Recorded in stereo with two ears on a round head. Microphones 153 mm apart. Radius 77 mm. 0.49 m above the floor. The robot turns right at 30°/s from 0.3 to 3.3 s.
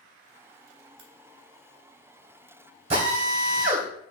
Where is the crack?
80° right, 1.7 m; by 1.1 s 75° right (ahead or behind), 1.7 m.